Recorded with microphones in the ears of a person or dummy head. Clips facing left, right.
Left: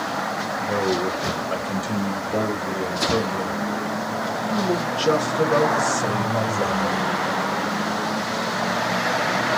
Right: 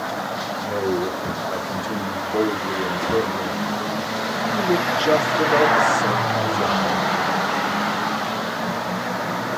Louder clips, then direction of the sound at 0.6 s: Even; 55° left (ahead or behind).